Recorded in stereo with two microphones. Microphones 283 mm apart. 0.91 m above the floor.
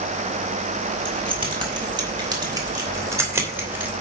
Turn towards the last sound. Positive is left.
turn(degrees=-5)  # may be behind; listen again after turning